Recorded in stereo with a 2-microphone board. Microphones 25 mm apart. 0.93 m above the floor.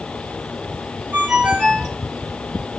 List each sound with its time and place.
1.1 s a ringtone: 70° right (ahead or behind), 4 m